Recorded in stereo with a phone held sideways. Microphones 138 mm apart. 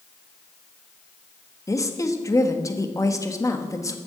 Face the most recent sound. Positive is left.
turn(degrees=25)  # may be behind; listen again after turning